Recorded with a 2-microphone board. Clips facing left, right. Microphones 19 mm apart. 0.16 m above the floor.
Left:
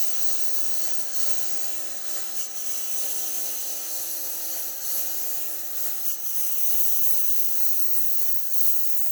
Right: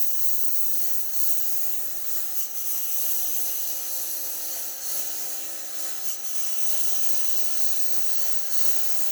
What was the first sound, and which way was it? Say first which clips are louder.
A lawn mower: left 4 dB; 20° left (ahead or behind).